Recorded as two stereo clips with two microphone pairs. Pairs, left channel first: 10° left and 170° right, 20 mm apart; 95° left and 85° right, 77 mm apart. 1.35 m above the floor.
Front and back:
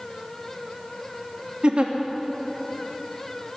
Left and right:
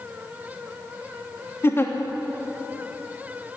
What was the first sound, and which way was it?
A giggle, 155° left.